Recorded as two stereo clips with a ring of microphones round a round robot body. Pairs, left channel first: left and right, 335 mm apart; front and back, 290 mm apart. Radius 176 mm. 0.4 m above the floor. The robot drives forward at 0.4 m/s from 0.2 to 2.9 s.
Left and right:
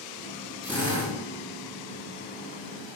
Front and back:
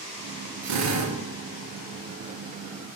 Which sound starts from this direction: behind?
A drill, at 0.6 s.